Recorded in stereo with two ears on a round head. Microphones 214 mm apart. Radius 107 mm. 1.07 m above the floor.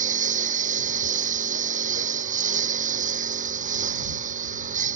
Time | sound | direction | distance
0.0 | a lawn mower | 35° right (ahead or behind) | ?